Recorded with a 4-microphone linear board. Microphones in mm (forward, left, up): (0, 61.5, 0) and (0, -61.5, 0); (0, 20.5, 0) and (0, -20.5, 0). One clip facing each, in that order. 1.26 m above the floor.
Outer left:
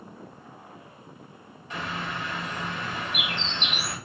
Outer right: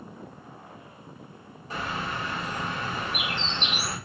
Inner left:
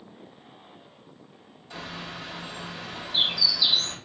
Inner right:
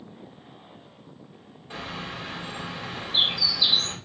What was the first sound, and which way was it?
A bird, 40° right (ahead or behind).